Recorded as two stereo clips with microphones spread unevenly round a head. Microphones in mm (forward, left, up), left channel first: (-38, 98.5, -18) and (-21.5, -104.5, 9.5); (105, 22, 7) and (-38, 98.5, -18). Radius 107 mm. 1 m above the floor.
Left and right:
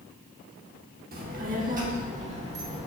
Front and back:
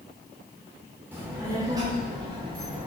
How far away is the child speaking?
About 1.6 m.